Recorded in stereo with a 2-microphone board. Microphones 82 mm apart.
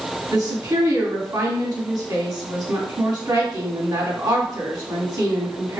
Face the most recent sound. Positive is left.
turn(degrees=-50)  # may be behind; listen again after turning